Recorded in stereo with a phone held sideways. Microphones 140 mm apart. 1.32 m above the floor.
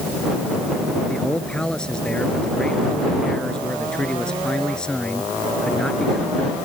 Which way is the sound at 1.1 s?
5° left (ahead or behind).